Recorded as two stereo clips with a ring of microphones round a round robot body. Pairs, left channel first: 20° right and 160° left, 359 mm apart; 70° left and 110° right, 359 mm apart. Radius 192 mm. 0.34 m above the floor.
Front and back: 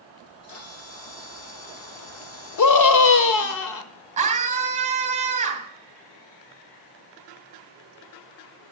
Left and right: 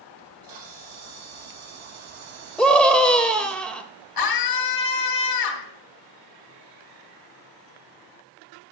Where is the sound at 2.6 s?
20° right, 1.2 m.